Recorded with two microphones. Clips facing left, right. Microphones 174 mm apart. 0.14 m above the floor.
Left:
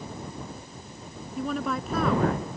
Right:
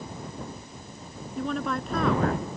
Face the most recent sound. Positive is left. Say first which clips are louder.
# even
turn(degrees=5)  # may be behind; listen again after turning